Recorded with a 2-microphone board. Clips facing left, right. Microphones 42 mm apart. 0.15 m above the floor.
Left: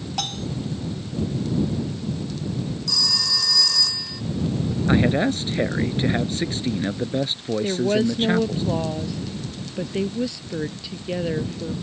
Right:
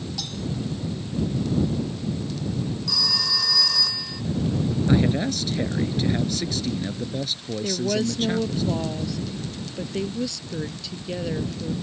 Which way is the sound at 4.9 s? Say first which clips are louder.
Left 4 dB; 35° left (ahead or behind).